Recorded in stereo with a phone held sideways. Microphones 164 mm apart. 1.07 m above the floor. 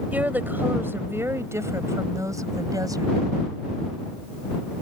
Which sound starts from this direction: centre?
A woman speaking, at 0.1 s.